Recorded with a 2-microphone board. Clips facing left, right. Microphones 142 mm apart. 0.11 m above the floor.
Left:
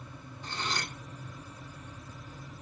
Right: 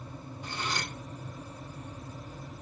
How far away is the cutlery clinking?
About 2 m.